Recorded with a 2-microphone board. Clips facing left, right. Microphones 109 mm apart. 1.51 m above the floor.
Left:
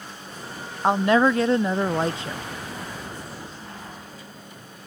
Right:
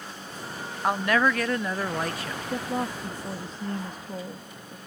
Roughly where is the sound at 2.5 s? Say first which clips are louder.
Right 6 dB; right.